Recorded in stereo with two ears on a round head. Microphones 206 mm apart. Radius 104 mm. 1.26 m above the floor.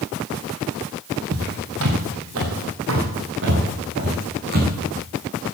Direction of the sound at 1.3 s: 70° right (ahead or behind).